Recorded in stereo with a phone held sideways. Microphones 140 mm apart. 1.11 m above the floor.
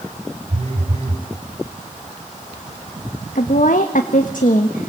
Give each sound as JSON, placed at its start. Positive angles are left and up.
{"t": 0.5, "sound": "a phone buzzing", "side_deg": -45, "distance_m": 5.0}
{"t": 3.4, "sound": "a woman speaking", "side_deg": 75, "distance_m": 1.5}